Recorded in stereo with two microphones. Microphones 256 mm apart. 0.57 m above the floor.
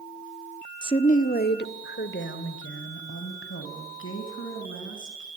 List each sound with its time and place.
0.8 s a woman speaking: 15° left (ahead or behind), 0.8 m; by 5.3 s 55° left (ahead or behind), 5.5 m